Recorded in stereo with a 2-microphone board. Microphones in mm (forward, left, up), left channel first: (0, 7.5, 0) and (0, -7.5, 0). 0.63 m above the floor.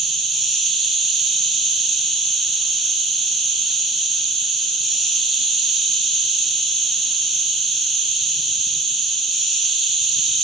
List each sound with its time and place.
0.0 s an insect: 55° left (ahead or behind), 2.0 m